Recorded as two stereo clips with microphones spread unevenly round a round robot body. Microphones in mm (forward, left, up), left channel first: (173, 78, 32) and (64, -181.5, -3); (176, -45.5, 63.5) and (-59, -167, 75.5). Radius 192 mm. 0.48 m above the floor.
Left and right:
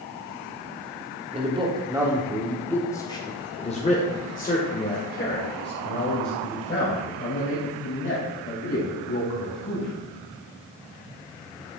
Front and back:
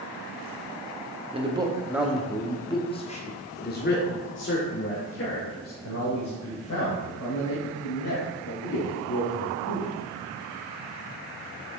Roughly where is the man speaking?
Right.